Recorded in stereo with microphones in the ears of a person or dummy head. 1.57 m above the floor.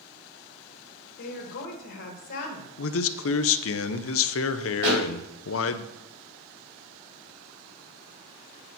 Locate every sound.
1.2 s a woman speaking: 65° left (ahead or behind), 1.6 m
2.8 s a man speaking: 65° left (ahead or behind), 0.6 m
4.8 s a pop: 70° right (ahead or behind), 4 m